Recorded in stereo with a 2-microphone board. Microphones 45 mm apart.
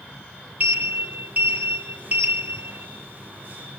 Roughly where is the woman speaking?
No woman speaking in this recording.